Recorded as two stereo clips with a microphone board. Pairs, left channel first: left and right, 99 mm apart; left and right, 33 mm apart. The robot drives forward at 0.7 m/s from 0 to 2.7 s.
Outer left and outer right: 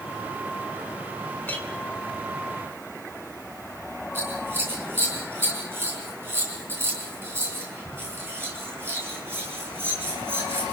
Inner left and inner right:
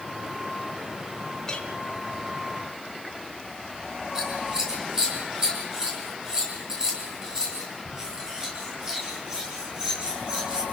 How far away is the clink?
About 3.5 m.